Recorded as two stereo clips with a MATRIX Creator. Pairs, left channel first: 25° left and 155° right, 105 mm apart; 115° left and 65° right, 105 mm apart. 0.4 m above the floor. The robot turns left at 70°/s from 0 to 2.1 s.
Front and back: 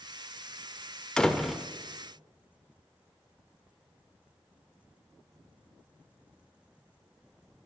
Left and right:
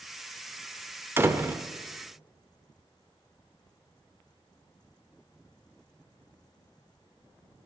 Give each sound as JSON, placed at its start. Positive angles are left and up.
{"t": 1.2, "sound": "a door slam", "azimuth_deg": -50, "distance_m": 0.6}